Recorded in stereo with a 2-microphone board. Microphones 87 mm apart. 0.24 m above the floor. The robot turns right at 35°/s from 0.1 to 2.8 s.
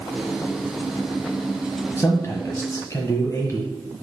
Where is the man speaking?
25° left (ahead or behind), 1.3 m; by 3.7 s 40° left (ahead or behind), 1.3 m.